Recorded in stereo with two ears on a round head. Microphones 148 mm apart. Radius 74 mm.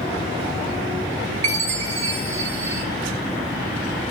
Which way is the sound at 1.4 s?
45° right (ahead or behind).